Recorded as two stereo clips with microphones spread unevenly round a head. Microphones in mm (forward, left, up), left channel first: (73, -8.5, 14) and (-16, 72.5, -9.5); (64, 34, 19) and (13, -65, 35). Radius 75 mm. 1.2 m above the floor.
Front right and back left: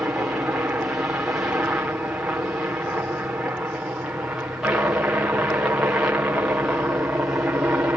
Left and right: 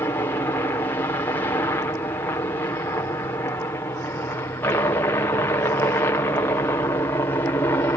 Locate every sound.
0.0 s a helicopter: 80° left